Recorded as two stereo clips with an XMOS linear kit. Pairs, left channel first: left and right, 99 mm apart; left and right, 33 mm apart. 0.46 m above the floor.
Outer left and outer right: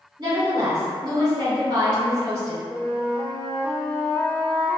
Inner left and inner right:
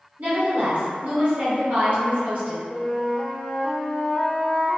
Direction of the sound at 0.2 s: 45° right (ahead or behind).